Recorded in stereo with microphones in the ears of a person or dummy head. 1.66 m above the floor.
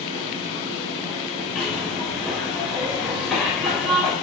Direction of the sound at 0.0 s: 25° left (ahead or behind).